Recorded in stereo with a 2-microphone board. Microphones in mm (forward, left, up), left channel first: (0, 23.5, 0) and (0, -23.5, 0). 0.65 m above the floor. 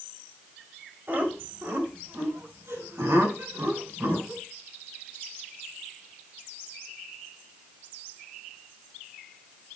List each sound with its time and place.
1.1 s laughter: 45° right (ahead or behind), 3.5 m; by 4.4 s 80° right, 6.5 m